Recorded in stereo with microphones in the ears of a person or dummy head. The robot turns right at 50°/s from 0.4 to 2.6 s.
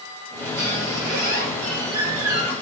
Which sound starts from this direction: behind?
A squeak, at 0.6 s.